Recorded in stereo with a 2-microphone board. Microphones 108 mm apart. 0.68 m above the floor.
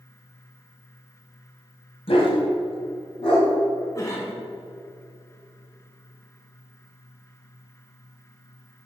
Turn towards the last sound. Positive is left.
turn(degrees=30)  # may be behind; listen again after turning